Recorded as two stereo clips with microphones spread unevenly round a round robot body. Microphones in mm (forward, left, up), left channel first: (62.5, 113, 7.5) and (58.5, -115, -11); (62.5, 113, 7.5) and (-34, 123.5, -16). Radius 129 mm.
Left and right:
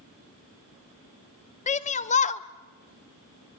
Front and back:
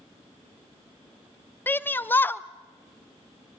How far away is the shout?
About 0.8 m.